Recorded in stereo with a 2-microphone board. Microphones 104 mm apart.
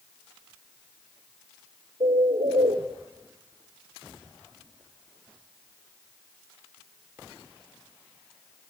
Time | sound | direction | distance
2.0 | a bird | 80° right | 3.5 m